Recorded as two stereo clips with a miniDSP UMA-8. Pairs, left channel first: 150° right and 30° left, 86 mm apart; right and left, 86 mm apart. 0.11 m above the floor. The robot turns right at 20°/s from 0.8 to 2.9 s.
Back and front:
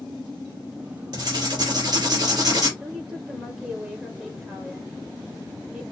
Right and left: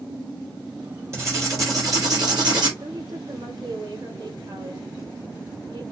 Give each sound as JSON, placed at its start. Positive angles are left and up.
{"t": 1.1, "sound": "writing", "azimuth_deg": 40, "distance_m": 3.0}
{"t": 2.8, "sound": "a woman speaking", "azimuth_deg": 105, "distance_m": 2.0}